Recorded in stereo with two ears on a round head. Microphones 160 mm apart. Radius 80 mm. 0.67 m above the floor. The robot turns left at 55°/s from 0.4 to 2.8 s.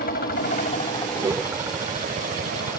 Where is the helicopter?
55° left; by 2.8 s 75° right.